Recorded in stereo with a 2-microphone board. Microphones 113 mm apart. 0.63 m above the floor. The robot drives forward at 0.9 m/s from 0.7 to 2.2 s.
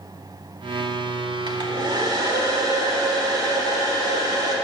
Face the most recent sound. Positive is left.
turn(degrees=-35)  # may be behind; listen again after turning